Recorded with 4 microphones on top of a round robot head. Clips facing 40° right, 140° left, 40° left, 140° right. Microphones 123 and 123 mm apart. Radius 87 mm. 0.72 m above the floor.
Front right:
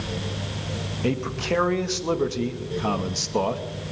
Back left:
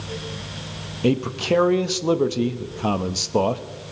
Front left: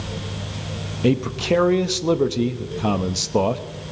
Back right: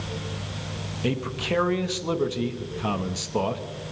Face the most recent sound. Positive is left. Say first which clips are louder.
# back left 5 dB, front left 8 dB
turn(degrees=80)